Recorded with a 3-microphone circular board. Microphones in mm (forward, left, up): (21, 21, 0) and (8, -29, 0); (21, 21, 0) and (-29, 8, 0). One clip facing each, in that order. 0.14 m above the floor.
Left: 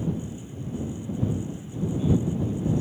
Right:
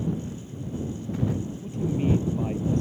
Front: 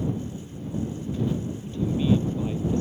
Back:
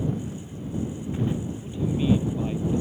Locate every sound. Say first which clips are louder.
0.1 s footsteps: right 1 dB, back 1 dB; 145° right; by 1.4 s 95° right
1.6 s a man speaking: right 1 dB, even; 90° right